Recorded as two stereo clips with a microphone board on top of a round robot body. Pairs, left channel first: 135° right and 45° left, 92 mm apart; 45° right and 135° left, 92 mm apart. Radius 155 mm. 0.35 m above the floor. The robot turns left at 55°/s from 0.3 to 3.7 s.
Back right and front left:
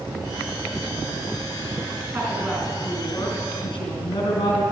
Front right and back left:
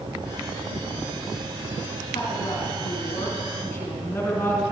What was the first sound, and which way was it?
A woman speaking, 15° right.